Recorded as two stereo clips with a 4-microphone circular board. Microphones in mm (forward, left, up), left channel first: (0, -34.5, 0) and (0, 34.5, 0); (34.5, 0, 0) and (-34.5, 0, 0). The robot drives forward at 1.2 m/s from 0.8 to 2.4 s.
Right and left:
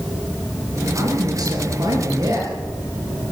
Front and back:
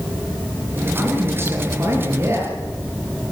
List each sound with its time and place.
0.9 s a man speaking: 115° left, 7.5 m; by 2.5 s 130° left, 8 m